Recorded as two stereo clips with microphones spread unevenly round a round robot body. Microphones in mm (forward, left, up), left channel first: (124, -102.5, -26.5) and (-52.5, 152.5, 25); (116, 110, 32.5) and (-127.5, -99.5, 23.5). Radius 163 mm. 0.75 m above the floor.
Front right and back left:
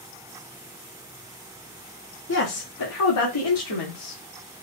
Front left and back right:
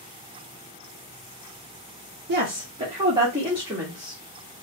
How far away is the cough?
No cough in this recording.